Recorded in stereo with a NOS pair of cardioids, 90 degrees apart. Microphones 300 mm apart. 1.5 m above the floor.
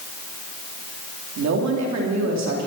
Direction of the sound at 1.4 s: 65° right.